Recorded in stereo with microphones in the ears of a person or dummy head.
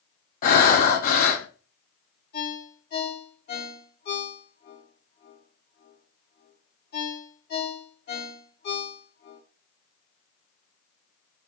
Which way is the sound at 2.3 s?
55° left (ahead or behind).